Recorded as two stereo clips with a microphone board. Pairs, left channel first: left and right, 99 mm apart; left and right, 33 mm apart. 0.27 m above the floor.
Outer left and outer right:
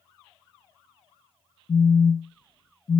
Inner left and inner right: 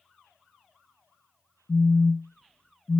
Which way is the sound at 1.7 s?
60° left (ahead or behind).